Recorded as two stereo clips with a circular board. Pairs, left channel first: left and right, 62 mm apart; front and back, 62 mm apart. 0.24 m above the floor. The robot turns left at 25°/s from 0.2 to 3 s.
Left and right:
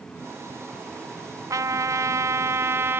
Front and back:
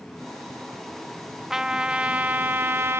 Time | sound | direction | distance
1.5 | a trumpet | 100° right | 0.7 m